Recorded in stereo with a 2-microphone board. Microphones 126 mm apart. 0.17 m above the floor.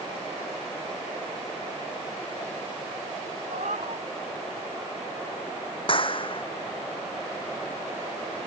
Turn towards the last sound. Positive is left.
turn(degrees=45)  # may be behind; listen again after turning